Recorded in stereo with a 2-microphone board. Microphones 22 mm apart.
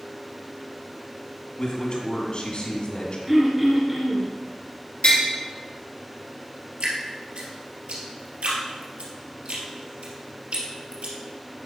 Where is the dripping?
75° right (ahead or behind), 2.5 m.